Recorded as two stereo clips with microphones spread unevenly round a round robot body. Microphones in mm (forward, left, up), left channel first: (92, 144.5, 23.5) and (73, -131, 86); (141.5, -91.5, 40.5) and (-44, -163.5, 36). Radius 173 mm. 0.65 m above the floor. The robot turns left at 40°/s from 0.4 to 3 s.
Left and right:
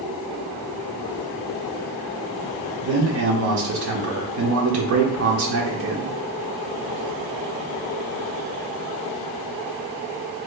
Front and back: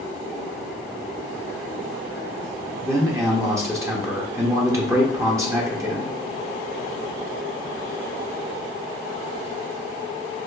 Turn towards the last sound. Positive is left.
turn(degrees=-90)